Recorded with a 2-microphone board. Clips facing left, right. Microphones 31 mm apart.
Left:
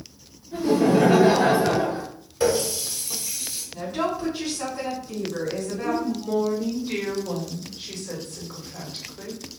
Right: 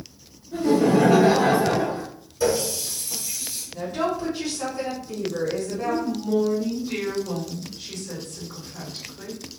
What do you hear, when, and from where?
0.5 s laughter: 10° left (ahead or behind), 1.7 m; by 2.0 s 40° left (ahead or behind), 1.6 m
2.4 s a running tap: 55° left (ahead or behind), 0.9 m
3.7 s a woman speaking: 5° left (ahead or behind), 1.9 m
5.8 s a woman speaking: 35° left (ahead or behind), 0.9 m